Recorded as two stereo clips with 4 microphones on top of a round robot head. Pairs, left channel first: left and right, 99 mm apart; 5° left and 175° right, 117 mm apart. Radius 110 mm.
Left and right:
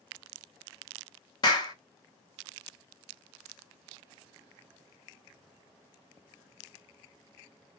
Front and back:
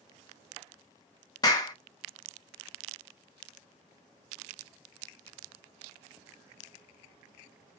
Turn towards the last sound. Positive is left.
turn(degrees=55)